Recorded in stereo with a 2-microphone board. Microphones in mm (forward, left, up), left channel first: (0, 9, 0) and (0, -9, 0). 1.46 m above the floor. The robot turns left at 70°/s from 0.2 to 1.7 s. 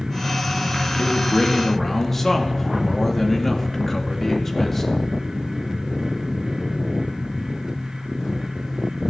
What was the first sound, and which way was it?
A man speaking, 70° left.